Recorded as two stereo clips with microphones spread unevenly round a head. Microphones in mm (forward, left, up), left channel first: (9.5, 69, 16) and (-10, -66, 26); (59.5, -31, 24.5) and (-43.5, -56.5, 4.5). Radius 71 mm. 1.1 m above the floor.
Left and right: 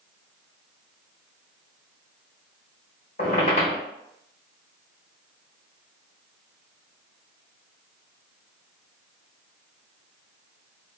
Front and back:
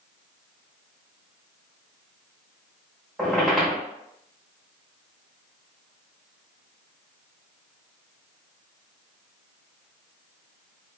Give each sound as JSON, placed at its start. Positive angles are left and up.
{"t": 3.2, "sound": "a squeak", "azimuth_deg": 85, "distance_m": 0.9}